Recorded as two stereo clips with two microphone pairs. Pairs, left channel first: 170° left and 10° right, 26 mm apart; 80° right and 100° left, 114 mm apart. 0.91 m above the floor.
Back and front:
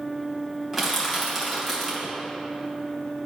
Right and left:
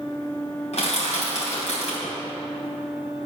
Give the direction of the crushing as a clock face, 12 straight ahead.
3 o'clock.